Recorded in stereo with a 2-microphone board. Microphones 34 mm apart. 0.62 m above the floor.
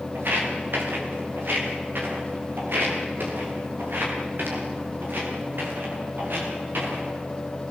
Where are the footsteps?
80° right, 7 m.